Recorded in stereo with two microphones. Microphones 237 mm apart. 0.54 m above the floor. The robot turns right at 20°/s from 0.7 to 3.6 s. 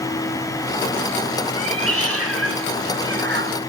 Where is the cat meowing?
90° right, 1.1 m; by 3.6 s 50° right, 1.1 m.